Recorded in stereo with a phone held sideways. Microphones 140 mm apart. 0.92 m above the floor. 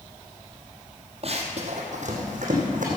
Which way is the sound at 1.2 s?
45° right (ahead or behind).